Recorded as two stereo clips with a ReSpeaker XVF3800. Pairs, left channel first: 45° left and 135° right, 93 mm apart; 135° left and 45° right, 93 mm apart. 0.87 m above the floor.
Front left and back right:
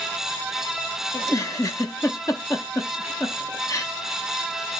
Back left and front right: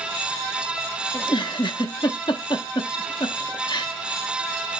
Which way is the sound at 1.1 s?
100° left.